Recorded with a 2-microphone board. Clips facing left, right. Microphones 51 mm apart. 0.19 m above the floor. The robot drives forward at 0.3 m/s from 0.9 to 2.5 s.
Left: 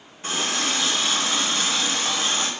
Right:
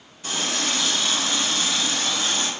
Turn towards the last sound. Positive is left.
turn(degrees=40)  # may be behind; listen again after turning